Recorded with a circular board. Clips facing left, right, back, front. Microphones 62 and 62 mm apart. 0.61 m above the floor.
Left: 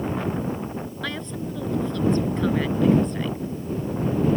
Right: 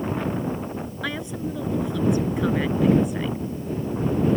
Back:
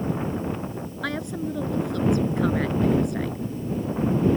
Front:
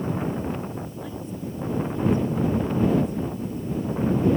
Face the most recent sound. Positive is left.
turn(degrees=-170)